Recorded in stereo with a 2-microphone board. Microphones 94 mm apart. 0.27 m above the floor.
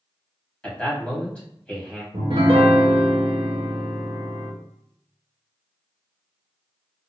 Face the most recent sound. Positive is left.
turn(degrees=-80)